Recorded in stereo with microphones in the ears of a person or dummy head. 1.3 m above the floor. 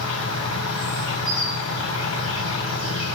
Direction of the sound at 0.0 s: 85° left.